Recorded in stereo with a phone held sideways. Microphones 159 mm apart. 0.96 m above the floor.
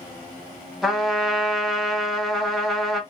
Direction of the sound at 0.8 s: Centre (ahead or behind).